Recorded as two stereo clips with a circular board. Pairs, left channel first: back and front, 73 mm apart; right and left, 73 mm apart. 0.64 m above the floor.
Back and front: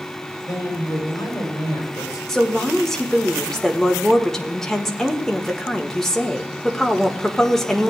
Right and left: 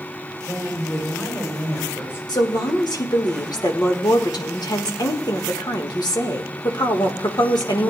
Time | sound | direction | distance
0.4 | a woman speaking | 145° right | 6 m
2.3 | a woman speaking | 95° right | 1.5 m